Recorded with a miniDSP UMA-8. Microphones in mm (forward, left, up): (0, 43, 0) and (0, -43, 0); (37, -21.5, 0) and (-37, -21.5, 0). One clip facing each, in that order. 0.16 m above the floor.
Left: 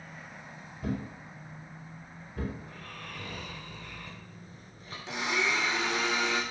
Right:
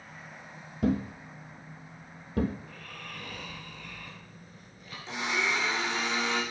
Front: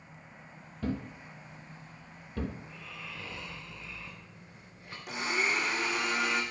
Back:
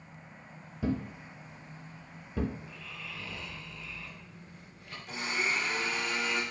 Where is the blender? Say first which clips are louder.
Even, front 2 dB; 15° left, 3 m.